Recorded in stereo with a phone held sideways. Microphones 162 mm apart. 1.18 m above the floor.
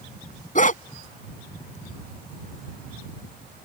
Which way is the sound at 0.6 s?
55° left (ahead or behind).